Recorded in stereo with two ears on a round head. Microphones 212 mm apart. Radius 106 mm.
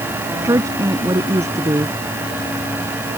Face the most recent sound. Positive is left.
turn(degrees=-10)  # may be behind; listen again after turning